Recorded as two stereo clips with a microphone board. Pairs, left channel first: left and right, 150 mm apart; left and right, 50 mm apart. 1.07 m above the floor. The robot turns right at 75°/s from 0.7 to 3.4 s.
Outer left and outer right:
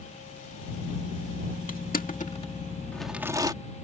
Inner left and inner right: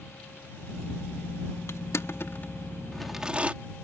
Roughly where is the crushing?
Left.